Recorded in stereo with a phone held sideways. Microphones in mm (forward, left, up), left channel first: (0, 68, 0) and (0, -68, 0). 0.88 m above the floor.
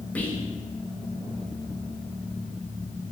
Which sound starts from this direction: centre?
Whispering, at 0.1 s.